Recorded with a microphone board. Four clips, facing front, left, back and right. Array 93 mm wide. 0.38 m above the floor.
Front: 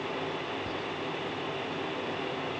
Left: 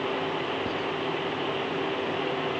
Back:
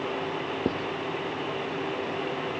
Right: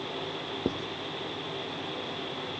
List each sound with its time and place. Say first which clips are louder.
0.7 s writing: left 2 dB, back 7 dB; 160° right